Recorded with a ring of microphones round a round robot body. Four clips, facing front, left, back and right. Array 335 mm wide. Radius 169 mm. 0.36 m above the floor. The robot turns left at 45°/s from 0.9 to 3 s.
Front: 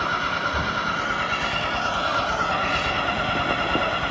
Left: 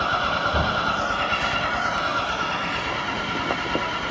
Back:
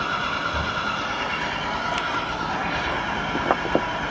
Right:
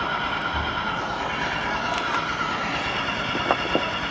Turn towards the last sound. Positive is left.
turn(degrees=-10)